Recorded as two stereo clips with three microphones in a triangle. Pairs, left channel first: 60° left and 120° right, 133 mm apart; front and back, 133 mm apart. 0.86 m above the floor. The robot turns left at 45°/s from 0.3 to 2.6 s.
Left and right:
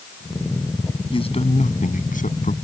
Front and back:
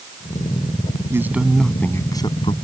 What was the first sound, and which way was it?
A man speaking, 110° left.